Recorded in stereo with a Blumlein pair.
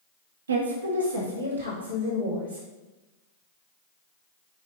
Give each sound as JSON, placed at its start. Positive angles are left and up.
{"t": 0.5, "sound": "a woman speaking", "azimuth_deg": -70, "distance_m": 0.7}